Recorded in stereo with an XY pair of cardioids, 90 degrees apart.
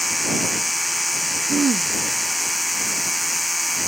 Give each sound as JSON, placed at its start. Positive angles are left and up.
{"t": 0.0, "sound": "a machine running", "azimuth_deg": 15}
{"t": 1.5, "sound": "throat clearing", "azimuth_deg": -40}